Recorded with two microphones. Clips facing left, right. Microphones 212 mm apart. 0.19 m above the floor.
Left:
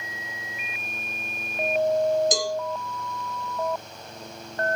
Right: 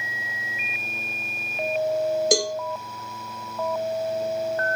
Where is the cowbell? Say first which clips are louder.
Right 4 dB; 70° right (ahead or behind), 1.4 m.